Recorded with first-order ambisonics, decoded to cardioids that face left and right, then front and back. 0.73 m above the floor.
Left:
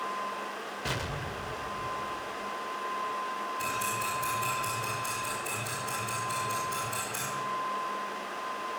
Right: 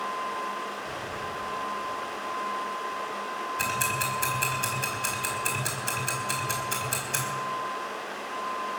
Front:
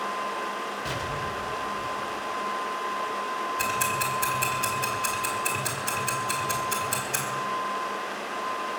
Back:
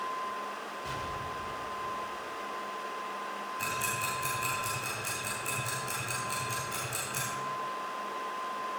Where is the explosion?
60° left, 0.8 m.